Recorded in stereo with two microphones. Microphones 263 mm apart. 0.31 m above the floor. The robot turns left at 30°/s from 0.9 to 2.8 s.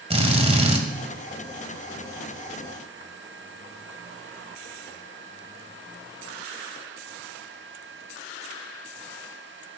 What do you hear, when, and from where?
0.1 s a drill: 25° right (ahead or behind), 1.8 m